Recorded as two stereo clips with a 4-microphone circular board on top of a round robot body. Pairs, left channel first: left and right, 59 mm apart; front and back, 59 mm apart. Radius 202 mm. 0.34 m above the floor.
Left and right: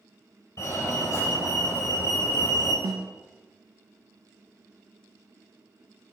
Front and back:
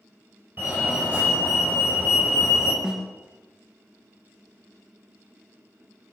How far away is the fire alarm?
About 6 m.